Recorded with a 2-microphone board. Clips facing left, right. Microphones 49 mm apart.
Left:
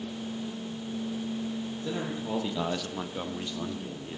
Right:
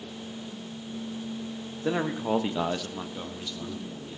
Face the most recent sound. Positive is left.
turn(degrees=35)  # may be behind; listen again after turning